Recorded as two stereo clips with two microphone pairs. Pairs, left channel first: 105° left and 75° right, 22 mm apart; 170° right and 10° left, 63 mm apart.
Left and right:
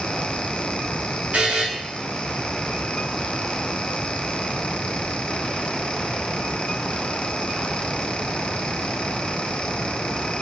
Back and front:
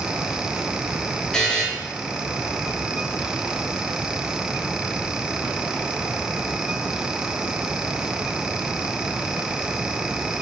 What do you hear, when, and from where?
1.3 s a buzzer: 90° right, 0.7 m